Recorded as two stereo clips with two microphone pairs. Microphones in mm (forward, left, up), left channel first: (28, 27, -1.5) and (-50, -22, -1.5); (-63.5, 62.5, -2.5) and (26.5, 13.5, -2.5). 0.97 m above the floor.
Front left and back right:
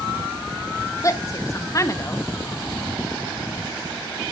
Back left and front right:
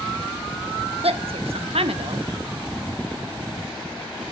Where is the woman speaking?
20° right, 1.0 m.